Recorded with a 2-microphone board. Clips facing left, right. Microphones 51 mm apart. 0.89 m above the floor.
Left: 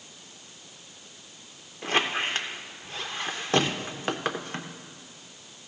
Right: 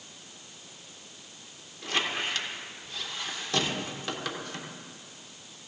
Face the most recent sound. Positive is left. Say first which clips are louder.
# left 4 dB
turn(degrees=40)  # may be behind; listen again after turning